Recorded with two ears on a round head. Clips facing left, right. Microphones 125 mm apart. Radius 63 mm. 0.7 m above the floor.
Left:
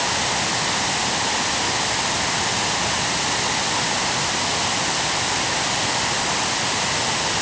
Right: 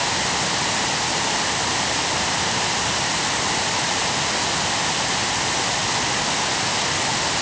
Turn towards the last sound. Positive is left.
No sound to turn to.